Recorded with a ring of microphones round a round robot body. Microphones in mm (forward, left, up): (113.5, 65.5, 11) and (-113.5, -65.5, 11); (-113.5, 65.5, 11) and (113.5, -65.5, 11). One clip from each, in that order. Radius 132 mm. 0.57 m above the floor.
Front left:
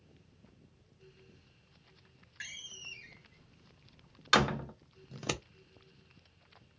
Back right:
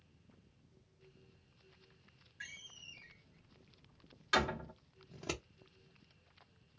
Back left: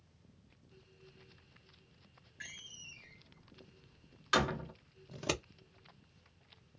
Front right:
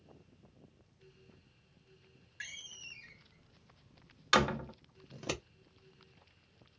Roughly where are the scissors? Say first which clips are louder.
Front left 5 dB, back left 3 dB; left.